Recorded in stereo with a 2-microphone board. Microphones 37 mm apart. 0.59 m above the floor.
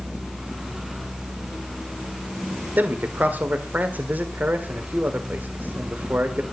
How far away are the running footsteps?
No running footsteps in this recording.